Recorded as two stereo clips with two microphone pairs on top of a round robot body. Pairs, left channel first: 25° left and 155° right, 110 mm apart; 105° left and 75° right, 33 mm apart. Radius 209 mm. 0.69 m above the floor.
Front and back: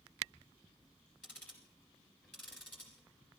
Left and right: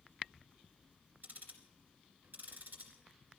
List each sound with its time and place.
1.2 s ticking: 70° right, 2 m